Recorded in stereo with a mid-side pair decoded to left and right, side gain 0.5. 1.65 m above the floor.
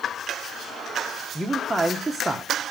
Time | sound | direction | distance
1.4 | a man speaking | 10° right | 1.3 m